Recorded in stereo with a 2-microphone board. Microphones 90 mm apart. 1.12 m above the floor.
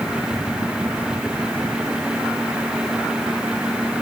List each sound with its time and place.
Only background noise.